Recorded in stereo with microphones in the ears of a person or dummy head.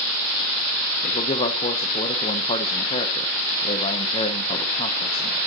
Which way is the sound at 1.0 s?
30° left (ahead or behind).